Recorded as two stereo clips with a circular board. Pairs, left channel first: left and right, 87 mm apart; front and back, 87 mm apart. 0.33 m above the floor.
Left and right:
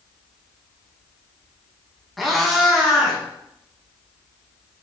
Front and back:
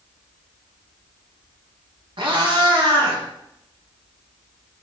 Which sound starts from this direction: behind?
A cat meowing, at 2.2 s.